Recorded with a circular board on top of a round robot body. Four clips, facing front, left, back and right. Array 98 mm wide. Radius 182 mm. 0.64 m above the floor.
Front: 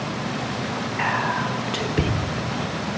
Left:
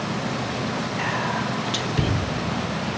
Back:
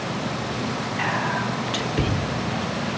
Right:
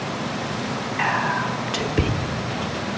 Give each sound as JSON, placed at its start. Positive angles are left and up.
{"t": 1.0, "sound": "whispering", "azimuth_deg": -65, "distance_m": 1.1}